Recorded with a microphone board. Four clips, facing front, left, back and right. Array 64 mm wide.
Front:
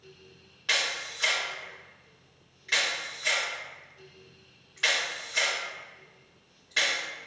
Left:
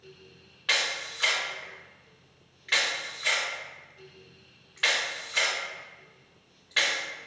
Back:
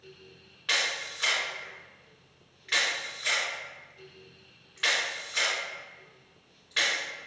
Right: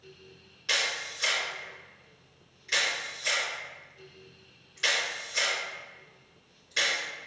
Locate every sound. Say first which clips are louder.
0.7 s a camera shutter: left 2 dB, even; 100° left, 1.8 m